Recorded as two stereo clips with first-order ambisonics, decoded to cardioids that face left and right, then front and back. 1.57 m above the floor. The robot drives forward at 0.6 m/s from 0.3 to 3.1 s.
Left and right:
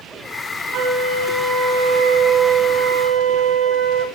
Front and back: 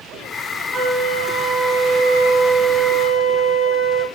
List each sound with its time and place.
0.7 s a flute: 105° right, 1.8 m; by 4.0 s 140° right, 2.5 m